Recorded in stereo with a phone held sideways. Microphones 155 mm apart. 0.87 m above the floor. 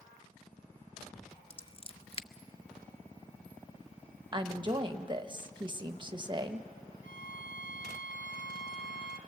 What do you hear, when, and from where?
1.5 s scissors: 40° left (ahead or behind), 0.7 m
4.3 s a woman speaking: 30° right (ahead or behind), 0.9 m
7.0 s a violin: 65° left (ahead or behind), 0.9 m